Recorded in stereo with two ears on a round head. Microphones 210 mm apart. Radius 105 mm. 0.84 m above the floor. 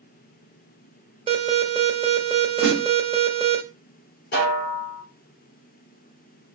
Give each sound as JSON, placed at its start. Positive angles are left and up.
{"t": 1.3, "sound": "an alarm", "side_deg": -25, "distance_m": 1.1}
{"t": 2.6, "sound": "a snare drum", "side_deg": 5, "distance_m": 3.0}
{"t": 4.3, "sound": "a snare drum", "side_deg": 45, "distance_m": 3.0}